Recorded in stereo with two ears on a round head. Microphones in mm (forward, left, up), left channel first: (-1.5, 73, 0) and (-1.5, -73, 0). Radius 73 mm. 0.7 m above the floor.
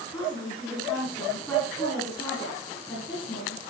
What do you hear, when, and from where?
0.1 s a woman speaking: 15° left (ahead or behind), 6.5 m